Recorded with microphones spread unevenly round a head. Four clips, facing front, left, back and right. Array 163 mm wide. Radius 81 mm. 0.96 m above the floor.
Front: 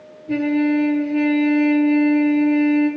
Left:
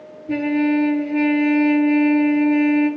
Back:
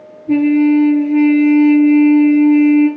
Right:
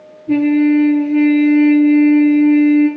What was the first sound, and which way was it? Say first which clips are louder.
A trumpet: right 7 dB, back 7 dB; 145° right.